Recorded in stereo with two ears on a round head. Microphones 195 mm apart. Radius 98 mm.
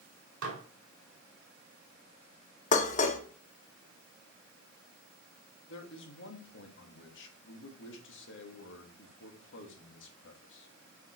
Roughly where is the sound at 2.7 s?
Left.